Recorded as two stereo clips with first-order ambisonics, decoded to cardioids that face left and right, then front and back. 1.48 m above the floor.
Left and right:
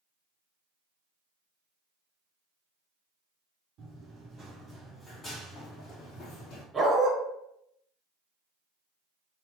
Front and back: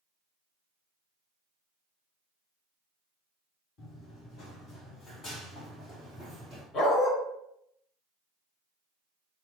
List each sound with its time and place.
3.8 s running footsteps: 40° right, 2 m; by 6.6 s 85° left, 2.5 m
6.7 s a dog barking: 20° right, 1.3 m